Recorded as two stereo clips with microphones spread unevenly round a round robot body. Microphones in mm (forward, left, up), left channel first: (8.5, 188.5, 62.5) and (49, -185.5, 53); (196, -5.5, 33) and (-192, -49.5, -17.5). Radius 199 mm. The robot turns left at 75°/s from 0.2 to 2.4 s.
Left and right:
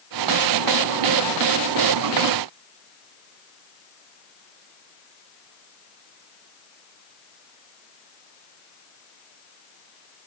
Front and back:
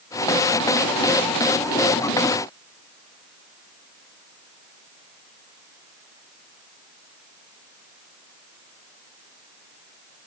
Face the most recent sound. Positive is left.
No sound to turn to.